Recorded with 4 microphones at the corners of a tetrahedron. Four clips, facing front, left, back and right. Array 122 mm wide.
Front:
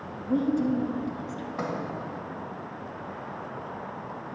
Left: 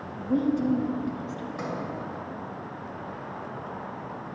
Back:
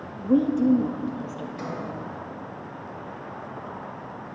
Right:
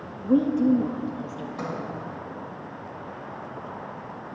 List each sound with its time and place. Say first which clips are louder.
0.2 s a woman speaking: right 4 dB, back 5 dB; 140° right, 0.7 m
1.6 s a sliding door: right 1 dB, front 3 dB; 15° right, 2 m